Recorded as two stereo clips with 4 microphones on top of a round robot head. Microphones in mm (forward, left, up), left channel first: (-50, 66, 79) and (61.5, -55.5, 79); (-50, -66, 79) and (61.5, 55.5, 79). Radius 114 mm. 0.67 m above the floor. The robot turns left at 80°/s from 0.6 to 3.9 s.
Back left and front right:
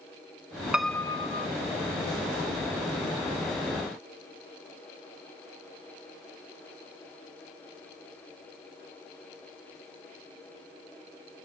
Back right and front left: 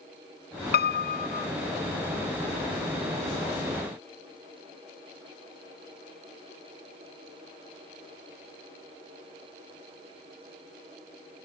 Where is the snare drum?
No snare drum in this recording.